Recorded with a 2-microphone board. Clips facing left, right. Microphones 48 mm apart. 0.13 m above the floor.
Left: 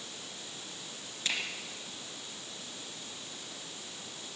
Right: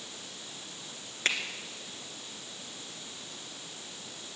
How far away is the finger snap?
About 2 m.